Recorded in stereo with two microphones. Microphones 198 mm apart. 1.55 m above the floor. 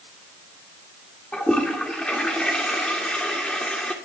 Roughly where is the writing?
I don't hear writing.